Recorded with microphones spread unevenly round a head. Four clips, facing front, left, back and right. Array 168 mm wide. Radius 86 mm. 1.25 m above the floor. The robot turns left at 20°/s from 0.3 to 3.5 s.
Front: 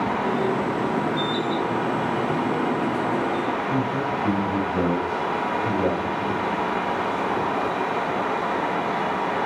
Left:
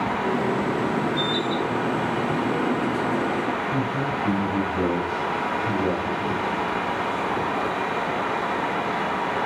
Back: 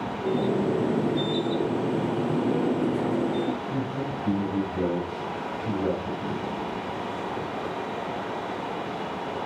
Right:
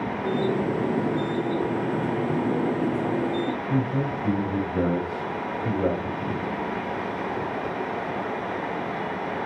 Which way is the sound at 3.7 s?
45° right.